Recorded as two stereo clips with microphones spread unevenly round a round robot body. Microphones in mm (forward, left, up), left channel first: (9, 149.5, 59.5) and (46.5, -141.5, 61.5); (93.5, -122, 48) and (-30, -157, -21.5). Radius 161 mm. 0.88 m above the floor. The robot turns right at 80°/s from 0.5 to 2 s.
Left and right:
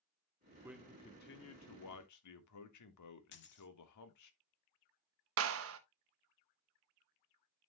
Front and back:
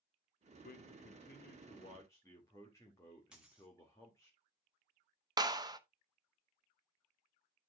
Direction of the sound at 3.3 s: 70° left.